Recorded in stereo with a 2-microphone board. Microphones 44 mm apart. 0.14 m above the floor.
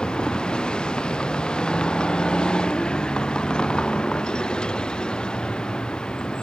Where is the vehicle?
20° left (ahead or behind).